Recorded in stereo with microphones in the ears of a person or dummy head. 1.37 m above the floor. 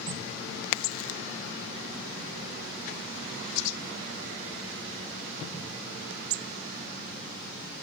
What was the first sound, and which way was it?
A crack, 75° left (ahead or behind).